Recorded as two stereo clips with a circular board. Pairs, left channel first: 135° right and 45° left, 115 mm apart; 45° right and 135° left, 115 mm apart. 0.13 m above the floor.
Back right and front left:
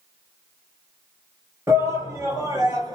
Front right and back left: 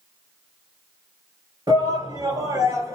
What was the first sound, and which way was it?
A shout, 100° left.